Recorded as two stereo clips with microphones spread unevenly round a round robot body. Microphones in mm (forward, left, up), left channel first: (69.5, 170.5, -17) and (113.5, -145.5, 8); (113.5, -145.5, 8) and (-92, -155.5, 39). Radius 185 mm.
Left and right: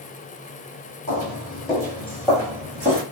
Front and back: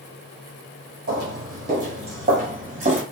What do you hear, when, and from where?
1.1 s footsteps: 160° left, 1.4 m; by 3.0 s 145° right, 1.4 m